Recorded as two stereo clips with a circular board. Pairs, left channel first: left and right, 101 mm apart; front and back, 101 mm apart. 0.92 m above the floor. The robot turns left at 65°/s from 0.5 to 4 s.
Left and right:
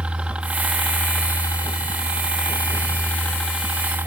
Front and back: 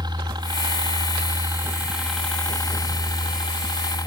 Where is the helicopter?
165° right; by 4.1 s 30° right.